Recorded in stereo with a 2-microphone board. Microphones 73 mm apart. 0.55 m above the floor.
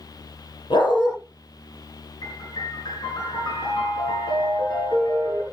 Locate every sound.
0.7 s a dog barking: 80° left, 5 m
2.2 s a piano: 70° left (ahead or behind), 6 m